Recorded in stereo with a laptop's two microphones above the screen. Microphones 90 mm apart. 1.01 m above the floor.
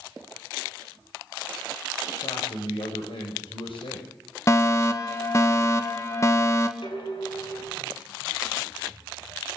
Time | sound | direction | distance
2.2 | a man speaking | 85° left | 5.5 m
4.5 | a fire alarm | 30° left (ahead or behind) | 1.7 m
6.8 | dishes clattering | 65° left (ahead or behind) | 7.5 m